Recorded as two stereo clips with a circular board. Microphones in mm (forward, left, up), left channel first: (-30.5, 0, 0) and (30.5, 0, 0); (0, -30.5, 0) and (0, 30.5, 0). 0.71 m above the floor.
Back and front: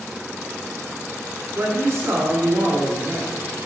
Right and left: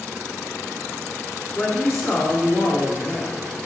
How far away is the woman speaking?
About 1.5 m.